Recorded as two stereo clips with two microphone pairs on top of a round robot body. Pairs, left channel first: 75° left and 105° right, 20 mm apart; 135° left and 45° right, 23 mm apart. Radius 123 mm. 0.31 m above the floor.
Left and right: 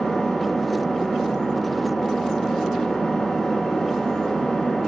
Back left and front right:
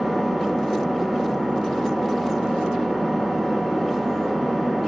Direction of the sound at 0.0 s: 30° left.